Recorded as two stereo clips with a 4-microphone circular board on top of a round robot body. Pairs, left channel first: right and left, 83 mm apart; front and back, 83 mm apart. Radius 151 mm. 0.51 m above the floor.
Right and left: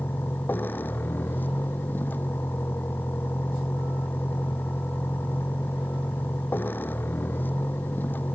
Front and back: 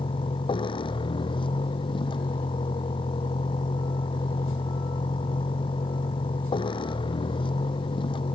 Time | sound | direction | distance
0.0 | a vehicle | 20° right | ?